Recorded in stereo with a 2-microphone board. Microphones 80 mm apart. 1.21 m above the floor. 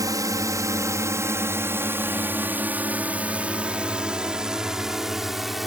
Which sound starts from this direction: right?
A drone, at 0.0 s.